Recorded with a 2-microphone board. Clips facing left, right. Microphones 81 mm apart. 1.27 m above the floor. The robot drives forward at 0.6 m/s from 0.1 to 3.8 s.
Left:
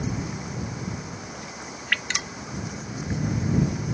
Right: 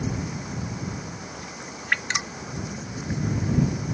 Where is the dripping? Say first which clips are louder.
Right 2 dB; 25° right (ahead or behind); by 2.4 s 20° right (ahead or behind).